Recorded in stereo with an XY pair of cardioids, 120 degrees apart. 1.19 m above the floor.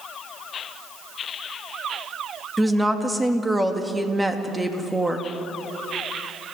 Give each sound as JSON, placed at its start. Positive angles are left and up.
{"t": 2.6, "sound": "a woman speaking", "azimuth_deg": -10, "distance_m": 2.5}